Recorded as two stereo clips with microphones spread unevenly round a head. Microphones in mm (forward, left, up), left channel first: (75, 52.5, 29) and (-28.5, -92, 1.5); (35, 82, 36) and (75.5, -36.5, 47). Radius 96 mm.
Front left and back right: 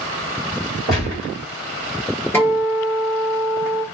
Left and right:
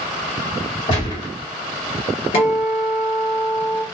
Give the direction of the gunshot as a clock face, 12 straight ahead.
7 o'clock.